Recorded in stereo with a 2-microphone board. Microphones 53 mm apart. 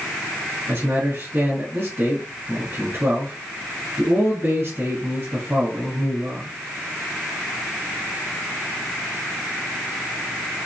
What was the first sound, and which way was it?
A man speaking, 45° right (ahead or behind).